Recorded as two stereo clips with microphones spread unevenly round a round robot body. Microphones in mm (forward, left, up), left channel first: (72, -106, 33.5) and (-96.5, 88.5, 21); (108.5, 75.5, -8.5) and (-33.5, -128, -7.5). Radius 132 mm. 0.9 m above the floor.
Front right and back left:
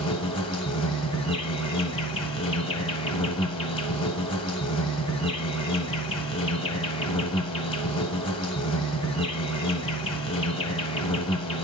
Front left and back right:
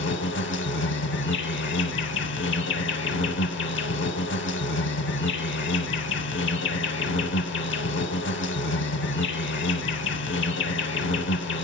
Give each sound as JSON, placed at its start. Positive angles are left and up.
{"t": 0.0, "sound": "an insect", "azimuth_deg": 20, "distance_m": 0.9}